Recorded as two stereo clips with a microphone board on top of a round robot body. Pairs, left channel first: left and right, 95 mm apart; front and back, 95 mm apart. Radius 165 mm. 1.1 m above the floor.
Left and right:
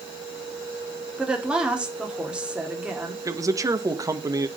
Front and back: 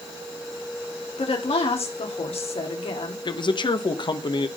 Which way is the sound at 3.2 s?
35° right.